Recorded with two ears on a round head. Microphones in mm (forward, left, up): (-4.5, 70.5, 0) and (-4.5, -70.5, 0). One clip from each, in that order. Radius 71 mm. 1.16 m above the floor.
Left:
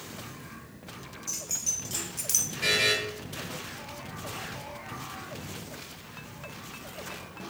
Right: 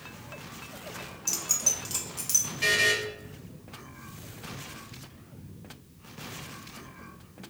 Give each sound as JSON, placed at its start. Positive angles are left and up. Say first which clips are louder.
{"t": 1.3, "sound": "keys jangling", "louder": "right 4 dB", "side_deg": -45, "distance_m": 0.5}
{"t": 2.6, "sound": "a buzzer", "louder": "right 1 dB", "side_deg": -45, "distance_m": 1.2}